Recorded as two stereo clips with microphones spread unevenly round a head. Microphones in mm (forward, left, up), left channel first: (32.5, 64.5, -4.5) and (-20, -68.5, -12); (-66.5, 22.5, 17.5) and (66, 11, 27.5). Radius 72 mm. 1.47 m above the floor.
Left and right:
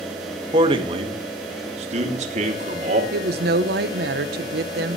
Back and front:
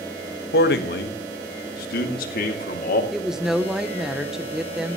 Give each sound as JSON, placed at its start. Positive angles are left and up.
{"t": 0.5, "sound": "a man speaking", "azimuth_deg": -175, "distance_m": 1.9}
{"t": 3.1, "sound": "a woman speaking", "azimuth_deg": -90, "distance_m": 1.0}